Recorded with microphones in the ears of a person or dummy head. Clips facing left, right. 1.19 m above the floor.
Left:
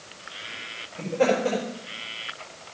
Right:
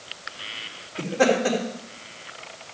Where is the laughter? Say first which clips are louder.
Right 1 dB; 70° right (ahead or behind), 3 m.